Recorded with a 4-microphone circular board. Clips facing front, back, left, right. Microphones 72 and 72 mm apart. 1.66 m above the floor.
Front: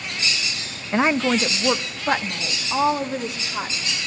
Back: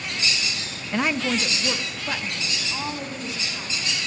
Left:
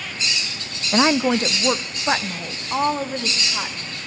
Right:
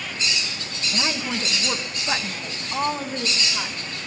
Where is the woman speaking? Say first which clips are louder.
Front 5 dB, left 11 dB; 65° left, 0.5 m; by 3.9 s 40° left, 2.5 m.